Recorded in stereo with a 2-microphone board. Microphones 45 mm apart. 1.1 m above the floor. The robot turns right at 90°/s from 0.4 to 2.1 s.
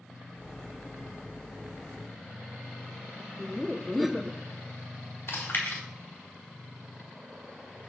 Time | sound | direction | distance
3.4 | laughter | centre (ahead or behind) | 0.7 m
5.3 | chewing | 55° left (ahead or behind) | 3.5 m